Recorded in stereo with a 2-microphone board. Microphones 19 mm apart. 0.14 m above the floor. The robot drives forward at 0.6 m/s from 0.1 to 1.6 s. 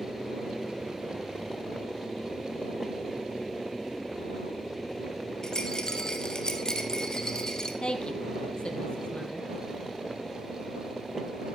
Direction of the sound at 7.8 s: 65° left (ahead or behind).